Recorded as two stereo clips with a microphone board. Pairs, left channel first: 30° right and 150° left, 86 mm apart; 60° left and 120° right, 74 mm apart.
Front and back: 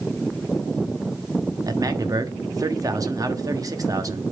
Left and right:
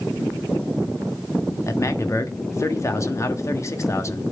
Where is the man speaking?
105° left, 1.3 m.